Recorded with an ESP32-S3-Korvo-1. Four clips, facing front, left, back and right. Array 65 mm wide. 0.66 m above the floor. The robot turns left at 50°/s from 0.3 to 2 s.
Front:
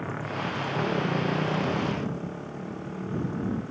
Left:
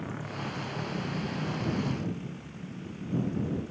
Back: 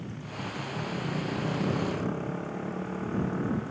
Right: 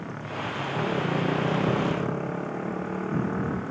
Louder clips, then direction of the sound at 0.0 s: Right 4 dB, front 7 dB; 15° right.